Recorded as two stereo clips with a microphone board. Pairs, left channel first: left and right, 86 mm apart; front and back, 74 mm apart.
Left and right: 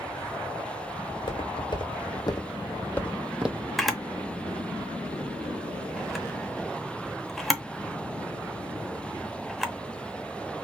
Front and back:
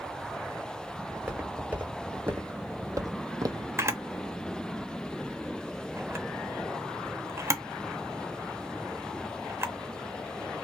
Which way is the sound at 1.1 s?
105° left.